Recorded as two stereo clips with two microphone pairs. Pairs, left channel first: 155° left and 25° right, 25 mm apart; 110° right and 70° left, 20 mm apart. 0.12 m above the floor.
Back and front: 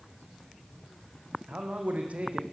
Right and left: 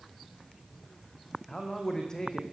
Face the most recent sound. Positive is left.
turn(degrees=-50)